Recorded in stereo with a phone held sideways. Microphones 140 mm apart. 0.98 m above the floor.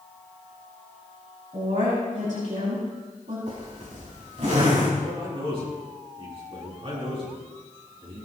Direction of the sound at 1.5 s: 70° right (ahead or behind).